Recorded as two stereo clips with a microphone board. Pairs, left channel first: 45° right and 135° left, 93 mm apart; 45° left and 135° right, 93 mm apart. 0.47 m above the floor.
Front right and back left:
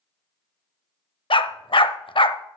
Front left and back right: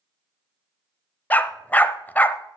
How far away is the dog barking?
About 0.6 m.